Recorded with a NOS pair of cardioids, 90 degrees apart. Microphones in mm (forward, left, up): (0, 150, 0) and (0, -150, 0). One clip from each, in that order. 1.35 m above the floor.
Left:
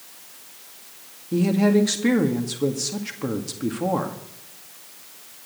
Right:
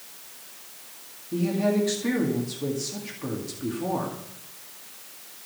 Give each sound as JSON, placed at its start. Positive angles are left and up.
{"t": 1.3, "sound": "a woman speaking", "azimuth_deg": 45, "distance_m": 2.0}